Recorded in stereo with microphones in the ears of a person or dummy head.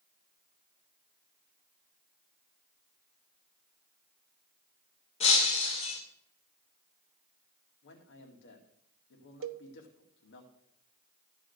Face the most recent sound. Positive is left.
turn(degrees=-70)  # may be behind; listen again after turning